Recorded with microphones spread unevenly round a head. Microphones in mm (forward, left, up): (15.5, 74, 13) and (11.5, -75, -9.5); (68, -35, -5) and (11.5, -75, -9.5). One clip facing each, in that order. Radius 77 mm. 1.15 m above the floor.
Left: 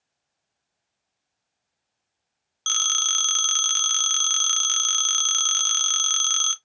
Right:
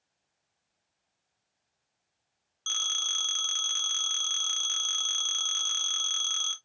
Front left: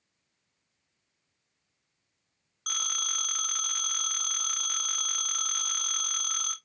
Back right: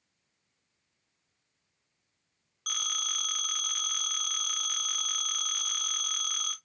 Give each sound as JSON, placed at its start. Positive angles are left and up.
{"t": 2.7, "sound": "a phone ringing", "azimuth_deg": 115, "distance_m": 0.6}